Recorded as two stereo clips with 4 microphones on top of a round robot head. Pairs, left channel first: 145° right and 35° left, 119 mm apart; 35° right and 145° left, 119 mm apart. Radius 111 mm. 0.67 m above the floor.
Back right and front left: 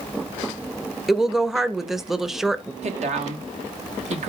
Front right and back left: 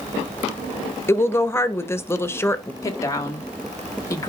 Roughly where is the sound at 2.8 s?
Ahead left.